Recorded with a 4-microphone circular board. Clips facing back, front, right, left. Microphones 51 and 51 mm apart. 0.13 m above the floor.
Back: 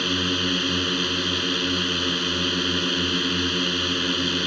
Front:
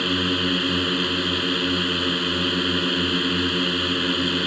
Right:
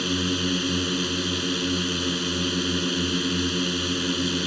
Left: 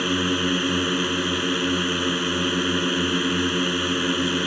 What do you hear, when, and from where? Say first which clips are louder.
0.0 s a drone: front 2 dB, left 3 dB; 75° left